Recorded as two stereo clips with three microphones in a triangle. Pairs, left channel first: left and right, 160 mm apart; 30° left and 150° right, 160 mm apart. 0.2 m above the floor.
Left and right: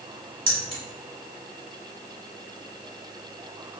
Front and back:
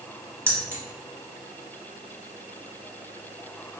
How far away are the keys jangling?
About 0.8 m.